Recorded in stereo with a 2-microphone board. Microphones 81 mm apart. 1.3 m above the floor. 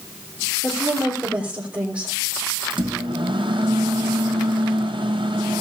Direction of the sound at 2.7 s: 75° right (ahead or behind).